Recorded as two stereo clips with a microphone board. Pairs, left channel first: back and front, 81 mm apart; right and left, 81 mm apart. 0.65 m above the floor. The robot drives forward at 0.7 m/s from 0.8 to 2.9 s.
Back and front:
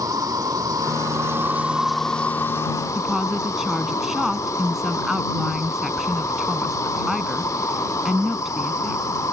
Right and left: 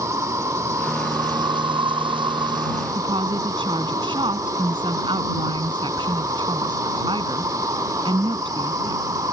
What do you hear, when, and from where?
0.0 s an insect: 40° left; by 9.3 s 135° left
3.0 s a woman speaking: 85° left